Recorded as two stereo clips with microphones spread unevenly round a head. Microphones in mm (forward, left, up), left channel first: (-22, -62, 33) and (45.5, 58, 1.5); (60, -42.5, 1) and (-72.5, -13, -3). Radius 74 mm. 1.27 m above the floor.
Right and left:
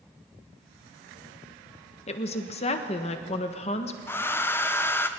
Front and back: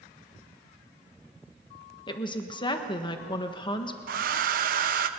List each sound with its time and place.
2.1 s a woman speaking: 70° right, 1.5 m
4.1 s a hair dryer: 160° left, 0.9 m